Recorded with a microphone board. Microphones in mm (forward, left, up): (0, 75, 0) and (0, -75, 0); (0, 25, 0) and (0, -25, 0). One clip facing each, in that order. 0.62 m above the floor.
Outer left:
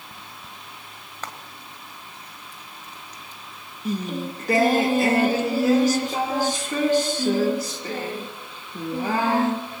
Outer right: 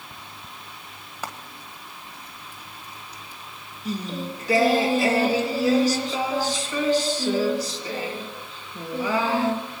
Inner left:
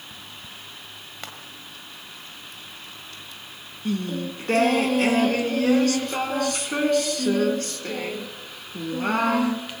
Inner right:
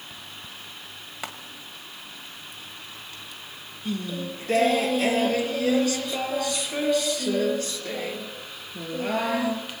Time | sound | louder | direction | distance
1.2 | frying | outer right 2 dB, inner right 3 dB | 10° right (ahead or behind) | 1.7 m
3.9 | singing | outer left 2 dB, inner left 3 dB | 55° left (ahead or behind) | 1.4 m